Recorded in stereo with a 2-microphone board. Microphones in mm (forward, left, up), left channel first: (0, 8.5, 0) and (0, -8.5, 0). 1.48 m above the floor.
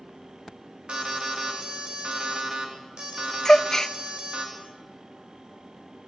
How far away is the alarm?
About 4.5 m.